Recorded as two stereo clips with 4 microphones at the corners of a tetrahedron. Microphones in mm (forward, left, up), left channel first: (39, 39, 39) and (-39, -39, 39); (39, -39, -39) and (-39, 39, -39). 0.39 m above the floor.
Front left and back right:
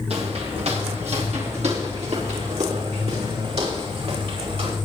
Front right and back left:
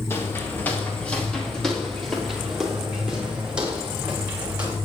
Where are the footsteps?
110° right, 3.5 m; by 4.8 s 150° right, 8 m.